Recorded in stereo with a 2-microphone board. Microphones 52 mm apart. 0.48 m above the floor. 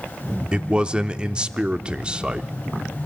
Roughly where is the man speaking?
Centre.